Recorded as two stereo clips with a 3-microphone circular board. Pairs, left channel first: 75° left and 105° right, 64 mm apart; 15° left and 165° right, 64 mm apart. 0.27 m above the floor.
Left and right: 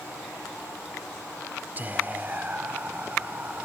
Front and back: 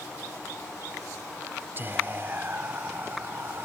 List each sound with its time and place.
1.8 s whispering: 145° right, 1.3 m